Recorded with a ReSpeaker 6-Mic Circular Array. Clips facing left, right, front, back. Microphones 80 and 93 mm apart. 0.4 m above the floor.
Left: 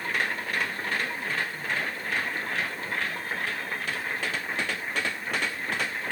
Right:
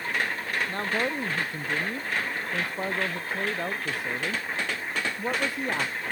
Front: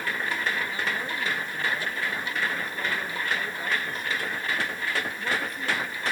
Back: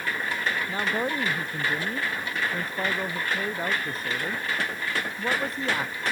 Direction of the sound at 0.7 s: 130° right.